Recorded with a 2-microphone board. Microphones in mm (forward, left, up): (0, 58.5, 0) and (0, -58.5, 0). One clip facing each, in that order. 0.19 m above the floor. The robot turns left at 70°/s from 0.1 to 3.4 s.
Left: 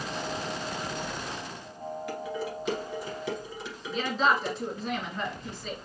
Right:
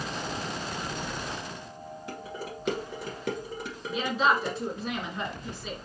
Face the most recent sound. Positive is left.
turn(degrees=-10)  # may be behind; listen again after turning